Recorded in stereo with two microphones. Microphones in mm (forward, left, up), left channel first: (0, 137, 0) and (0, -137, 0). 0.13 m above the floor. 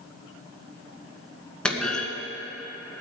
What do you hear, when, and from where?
1.6 s a clunk: 5° left (ahead or behind), 1.8 m